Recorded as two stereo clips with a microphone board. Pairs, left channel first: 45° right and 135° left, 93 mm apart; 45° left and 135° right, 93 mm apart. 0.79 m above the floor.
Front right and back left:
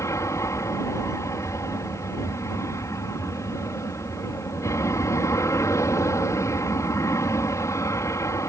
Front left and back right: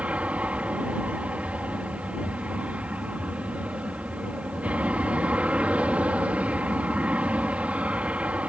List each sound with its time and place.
0.0 s an aircraft: 70° right